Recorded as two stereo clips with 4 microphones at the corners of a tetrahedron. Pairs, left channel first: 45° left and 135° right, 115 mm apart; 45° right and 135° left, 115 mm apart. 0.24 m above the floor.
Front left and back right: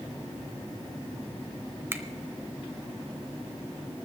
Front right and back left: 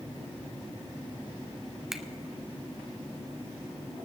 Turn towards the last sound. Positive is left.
turn(degrees=-145)